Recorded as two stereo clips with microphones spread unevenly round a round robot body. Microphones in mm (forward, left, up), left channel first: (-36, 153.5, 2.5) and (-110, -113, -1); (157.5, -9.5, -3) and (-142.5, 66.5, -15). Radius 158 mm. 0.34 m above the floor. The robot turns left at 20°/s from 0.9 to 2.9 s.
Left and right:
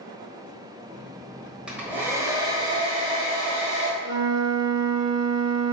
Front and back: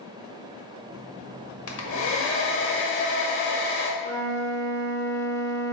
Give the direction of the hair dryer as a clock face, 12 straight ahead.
1 o'clock.